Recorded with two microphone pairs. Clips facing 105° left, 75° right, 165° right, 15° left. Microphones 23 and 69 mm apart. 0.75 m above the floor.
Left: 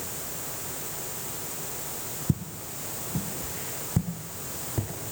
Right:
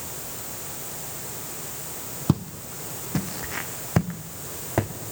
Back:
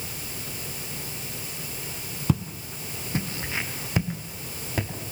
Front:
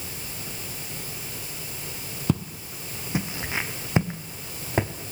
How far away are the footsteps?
About 1.6 m.